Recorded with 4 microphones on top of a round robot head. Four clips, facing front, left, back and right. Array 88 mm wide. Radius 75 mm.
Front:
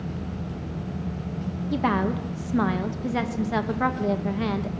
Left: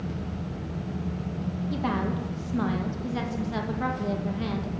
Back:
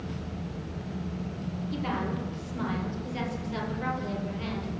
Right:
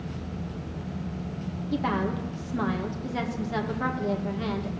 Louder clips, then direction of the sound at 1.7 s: Right 2 dB, front 8 dB; straight ahead.